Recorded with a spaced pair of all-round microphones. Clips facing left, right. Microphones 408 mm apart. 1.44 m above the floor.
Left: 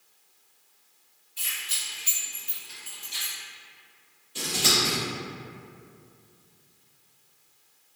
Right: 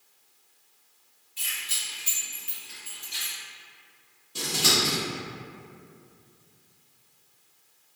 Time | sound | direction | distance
1.4 | keys jangling | 50° right (ahead or behind) | 1.7 m
4.3 | scissors | 60° right (ahead or behind) | 1.3 m